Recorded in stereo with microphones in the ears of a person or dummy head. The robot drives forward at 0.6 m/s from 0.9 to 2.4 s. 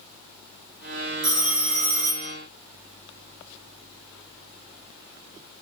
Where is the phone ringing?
35° right (ahead or behind), 2 m; by 2.3 s 50° right (ahead or behind), 1.6 m.